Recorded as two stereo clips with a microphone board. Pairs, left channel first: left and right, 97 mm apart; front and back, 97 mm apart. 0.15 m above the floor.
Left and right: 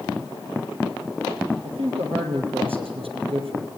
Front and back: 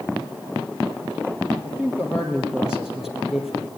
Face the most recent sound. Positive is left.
turn(degrees=-90)